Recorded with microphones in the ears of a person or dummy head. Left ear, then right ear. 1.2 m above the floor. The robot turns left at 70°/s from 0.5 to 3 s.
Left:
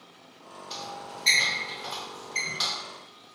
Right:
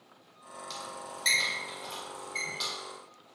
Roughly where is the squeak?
Right.